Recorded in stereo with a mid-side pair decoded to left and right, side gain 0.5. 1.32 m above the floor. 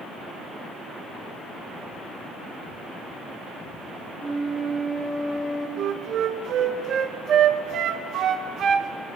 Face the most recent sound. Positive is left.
turn(degrees=-65)